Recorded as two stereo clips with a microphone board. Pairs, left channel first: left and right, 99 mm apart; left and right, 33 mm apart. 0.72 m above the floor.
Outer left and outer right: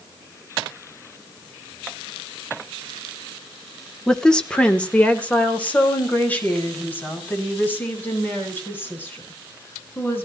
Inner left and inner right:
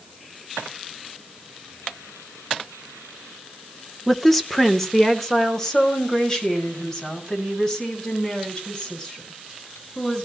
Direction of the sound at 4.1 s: 5° left (ahead or behind).